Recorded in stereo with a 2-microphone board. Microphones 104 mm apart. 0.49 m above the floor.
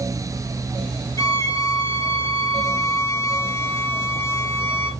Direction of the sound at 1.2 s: 35° left (ahead or behind).